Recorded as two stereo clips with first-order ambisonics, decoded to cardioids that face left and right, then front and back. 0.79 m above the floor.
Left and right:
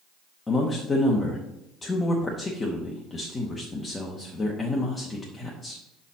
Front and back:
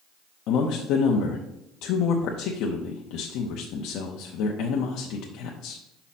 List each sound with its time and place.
0.5 s a man speaking: 15° left, 0.8 m